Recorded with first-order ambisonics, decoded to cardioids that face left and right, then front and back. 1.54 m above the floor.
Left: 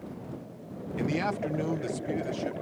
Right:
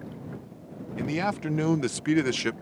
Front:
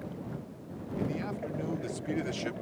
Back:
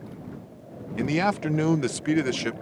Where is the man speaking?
Straight behind; by 2.5 s 120° right.